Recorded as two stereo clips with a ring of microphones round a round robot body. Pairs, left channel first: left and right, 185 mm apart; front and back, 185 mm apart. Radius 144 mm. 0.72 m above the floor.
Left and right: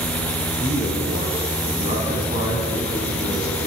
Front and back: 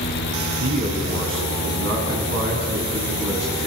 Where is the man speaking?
155° right, 7 m.